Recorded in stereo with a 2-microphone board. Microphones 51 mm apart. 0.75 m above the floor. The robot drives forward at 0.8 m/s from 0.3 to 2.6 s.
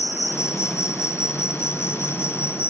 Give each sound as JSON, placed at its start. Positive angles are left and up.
{"t": 0.0, "sound": "an insect", "side_deg": 70}